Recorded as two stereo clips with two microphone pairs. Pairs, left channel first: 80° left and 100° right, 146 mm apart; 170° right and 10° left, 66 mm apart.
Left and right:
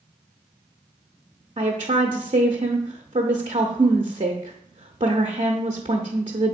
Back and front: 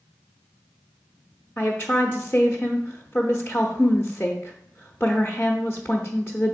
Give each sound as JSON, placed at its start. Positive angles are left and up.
{"t": 1.6, "sound": "a woman speaking", "azimuth_deg": -120, "distance_m": 0.8}